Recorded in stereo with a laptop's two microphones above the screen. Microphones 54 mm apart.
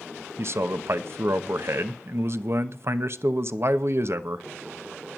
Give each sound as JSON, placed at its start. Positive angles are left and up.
{"t": 0.4, "sound": "a man speaking", "side_deg": -55, "distance_m": 0.9}